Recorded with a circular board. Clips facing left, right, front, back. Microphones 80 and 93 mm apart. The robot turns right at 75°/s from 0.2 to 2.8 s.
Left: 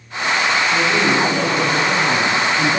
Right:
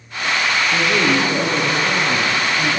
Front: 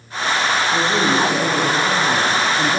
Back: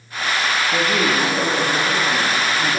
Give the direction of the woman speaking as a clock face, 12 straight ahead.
5 o'clock.